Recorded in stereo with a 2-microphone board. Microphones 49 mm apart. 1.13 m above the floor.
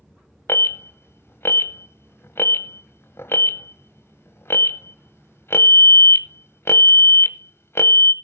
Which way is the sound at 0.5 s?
60° left (ahead or behind).